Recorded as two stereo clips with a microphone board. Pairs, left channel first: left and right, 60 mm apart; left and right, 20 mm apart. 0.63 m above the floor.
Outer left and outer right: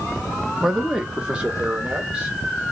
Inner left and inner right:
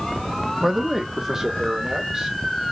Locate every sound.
0.6 s a man speaking: centre (ahead or behind), 0.8 m; by 2.4 s 20° right (ahead or behind), 2 m